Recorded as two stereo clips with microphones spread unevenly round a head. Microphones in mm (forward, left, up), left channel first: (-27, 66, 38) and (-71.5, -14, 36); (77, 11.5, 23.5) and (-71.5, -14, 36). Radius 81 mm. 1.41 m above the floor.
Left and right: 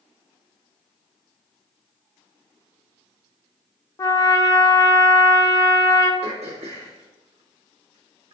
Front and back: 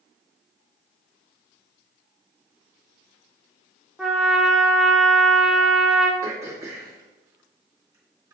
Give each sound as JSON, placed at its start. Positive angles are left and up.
{"t": 4.0, "sound": "a trumpet", "azimuth_deg": 105, "distance_m": 0.6}
{"t": 6.2, "sound": "throat clearing", "azimuth_deg": -100, "distance_m": 2.0}